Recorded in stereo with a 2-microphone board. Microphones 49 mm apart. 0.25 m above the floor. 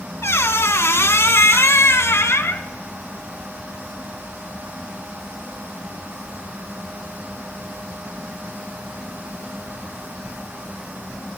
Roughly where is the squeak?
Left.